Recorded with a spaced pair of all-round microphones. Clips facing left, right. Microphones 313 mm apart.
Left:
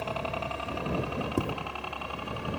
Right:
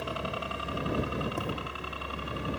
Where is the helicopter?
20° right (ahead or behind); by 2.6 s 25° right (ahead or behind).